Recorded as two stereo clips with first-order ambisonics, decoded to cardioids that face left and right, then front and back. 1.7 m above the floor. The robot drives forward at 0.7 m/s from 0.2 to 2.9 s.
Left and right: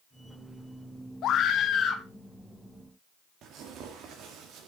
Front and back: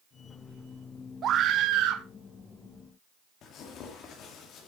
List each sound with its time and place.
1.2 s a scream: 130° left, 0.8 m; by 2.0 s 150° left, 1.2 m
3.4 s tearing paper: 45° right, 2.0 m